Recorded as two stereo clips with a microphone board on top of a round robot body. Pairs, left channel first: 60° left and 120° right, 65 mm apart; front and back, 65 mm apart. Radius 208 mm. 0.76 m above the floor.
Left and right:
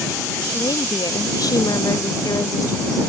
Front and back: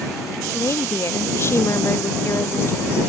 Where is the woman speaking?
45° left.